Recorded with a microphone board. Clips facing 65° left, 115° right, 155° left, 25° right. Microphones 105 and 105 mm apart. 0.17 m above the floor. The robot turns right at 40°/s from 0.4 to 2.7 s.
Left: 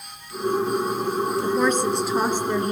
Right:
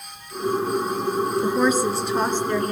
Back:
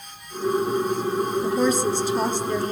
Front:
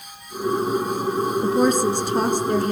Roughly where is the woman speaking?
Ahead right.